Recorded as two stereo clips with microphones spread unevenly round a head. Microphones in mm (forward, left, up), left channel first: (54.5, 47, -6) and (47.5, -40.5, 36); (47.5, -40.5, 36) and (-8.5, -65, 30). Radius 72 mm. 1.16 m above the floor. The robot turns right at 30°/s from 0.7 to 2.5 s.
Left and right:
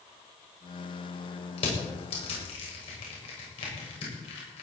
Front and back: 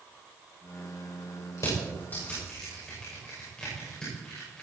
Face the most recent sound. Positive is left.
turn(degrees=105)